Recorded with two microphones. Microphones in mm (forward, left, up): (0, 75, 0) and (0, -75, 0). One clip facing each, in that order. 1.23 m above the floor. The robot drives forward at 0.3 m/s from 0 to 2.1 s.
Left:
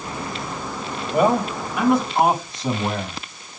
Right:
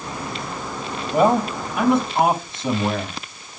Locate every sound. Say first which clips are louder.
1.1 s a man speaking: right 1 dB; 25° right (ahead or behind), 5.5 m